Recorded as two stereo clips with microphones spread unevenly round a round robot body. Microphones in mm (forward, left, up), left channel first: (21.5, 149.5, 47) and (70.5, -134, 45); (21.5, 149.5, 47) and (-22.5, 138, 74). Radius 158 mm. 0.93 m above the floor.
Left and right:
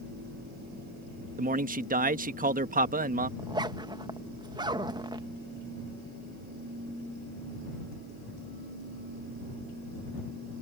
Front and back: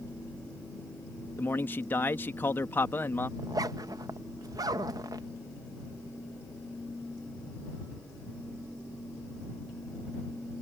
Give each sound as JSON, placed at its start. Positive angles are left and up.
{"t": 1.4, "sound": "a man speaking", "azimuth_deg": -15}
{"t": 3.4, "sound": "a zipper", "azimuth_deg": -155}